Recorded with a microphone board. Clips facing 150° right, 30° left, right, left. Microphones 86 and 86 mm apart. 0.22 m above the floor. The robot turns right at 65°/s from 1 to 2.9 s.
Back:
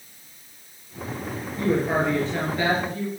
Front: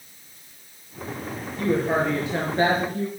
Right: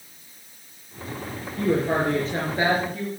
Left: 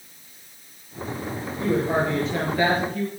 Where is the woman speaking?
90° right, 4.5 m; by 3.1 s straight ahead, 4.5 m.